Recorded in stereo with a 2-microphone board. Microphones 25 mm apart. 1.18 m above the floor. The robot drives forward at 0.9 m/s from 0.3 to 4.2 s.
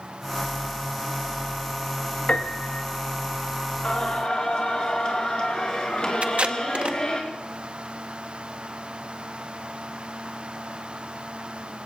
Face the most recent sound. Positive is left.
turn(degrees=-55)  # may be behind; listen again after turning